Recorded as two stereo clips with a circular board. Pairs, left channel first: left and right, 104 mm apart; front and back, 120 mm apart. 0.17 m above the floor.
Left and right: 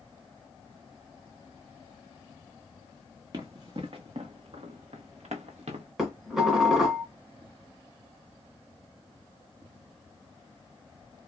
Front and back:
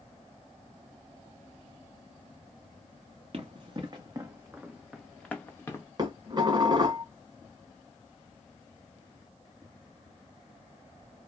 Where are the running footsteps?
140° right, 1.1 m; by 5.8 s 65° right, 1.0 m.